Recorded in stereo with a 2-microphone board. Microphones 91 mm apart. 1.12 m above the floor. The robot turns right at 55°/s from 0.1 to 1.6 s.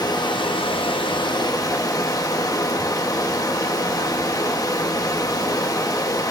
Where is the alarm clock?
I don't hear an alarm clock.